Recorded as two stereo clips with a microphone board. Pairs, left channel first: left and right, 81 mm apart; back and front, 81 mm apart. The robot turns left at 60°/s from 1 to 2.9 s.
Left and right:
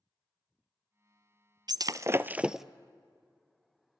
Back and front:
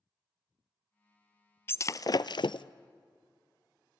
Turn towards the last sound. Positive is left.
turn(degrees=165)